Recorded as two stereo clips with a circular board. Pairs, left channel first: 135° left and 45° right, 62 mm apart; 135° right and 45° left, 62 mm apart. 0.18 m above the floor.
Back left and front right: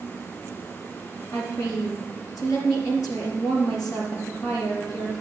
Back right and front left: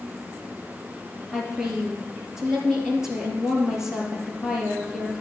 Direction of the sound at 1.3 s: 120° left.